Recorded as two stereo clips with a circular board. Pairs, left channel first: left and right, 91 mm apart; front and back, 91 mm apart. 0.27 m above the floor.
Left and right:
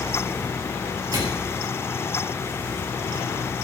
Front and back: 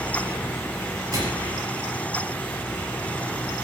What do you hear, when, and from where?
1.1 s a microwave: 130° right, 4 m